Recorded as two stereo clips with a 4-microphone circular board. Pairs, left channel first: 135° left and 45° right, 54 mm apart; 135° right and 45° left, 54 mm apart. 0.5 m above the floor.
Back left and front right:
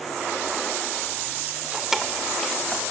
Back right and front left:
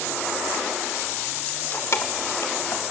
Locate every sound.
1.5 s keys jangling: 80° right, 0.8 m; by 2.8 s 145° right, 2.5 m